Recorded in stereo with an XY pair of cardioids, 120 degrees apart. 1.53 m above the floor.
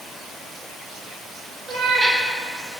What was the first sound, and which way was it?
A cat meowing, 15° right.